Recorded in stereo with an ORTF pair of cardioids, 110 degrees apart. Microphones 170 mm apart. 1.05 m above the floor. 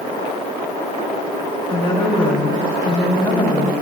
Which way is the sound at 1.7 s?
30° left.